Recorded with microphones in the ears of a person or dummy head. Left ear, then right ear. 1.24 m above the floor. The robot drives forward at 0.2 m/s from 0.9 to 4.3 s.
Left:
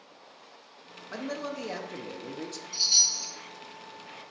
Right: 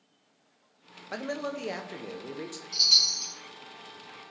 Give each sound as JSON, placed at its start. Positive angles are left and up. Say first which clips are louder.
{"t": 1.1, "sound": "a man speaking", "louder": "right 2 dB", "side_deg": -20, "distance_m": 0.5}
{"t": 2.7, "sound": "a chime", "louder": "right 2 dB", "side_deg": -55, "distance_m": 2.0}